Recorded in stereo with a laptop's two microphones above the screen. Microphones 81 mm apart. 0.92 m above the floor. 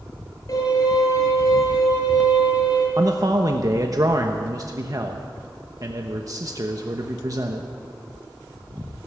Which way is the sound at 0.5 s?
45° left (ahead or behind).